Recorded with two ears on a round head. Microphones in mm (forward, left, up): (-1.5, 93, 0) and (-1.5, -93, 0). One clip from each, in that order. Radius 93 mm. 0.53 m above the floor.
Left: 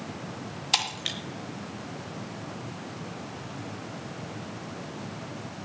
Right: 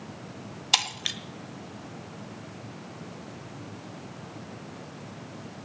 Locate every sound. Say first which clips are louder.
0.7 s breaking glass: right 2 dB; 15° right (ahead or behind), 1.0 m